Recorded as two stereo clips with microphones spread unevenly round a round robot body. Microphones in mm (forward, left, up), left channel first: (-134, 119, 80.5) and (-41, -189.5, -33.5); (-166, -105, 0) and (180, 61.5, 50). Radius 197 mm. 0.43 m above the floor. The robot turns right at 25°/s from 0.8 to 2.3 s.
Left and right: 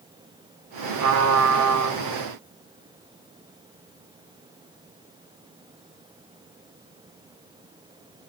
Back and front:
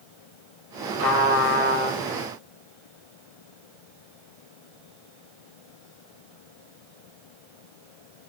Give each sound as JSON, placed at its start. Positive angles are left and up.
{"t": 1.0, "sound": "a trumpet", "azimuth_deg": -105, "distance_m": 1.2}